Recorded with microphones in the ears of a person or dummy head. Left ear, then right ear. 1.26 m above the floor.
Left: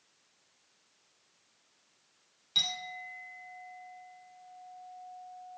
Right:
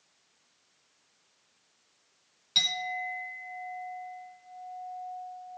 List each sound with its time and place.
2.5 s a clink: 10° right (ahead or behind), 3 m